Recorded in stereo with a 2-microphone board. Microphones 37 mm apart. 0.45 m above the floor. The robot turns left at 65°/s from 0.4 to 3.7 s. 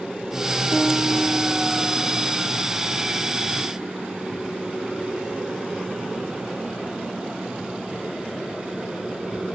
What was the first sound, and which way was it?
A piano, 105° right.